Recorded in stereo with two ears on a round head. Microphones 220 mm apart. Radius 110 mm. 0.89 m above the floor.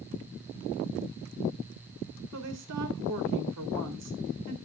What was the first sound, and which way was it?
A woman speaking, 75° right (ahead or behind).